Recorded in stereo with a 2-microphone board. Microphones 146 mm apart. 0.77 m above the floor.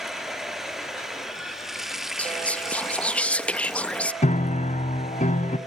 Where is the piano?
55° left (ahead or behind), 1.0 m.